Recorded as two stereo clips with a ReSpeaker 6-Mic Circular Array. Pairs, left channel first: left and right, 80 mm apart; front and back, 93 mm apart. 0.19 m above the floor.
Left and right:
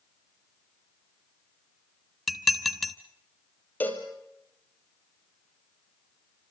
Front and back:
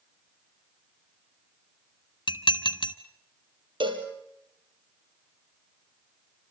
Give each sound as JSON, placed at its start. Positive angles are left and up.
{"t": 2.3, "sound": "dishes clattering", "azimuth_deg": 0, "distance_m": 1.3}
{"t": 3.8, "sound": "a cowbell", "azimuth_deg": 155, "distance_m": 3.5}